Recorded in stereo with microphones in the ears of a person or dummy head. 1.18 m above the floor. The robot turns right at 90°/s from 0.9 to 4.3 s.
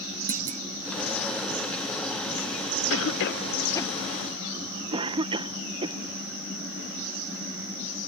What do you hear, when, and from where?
0.3 s a clunk: 45° right (ahead or behind)
2.9 s a cough: 70° left (ahead or behind); by 6.0 s 25° right (ahead or behind)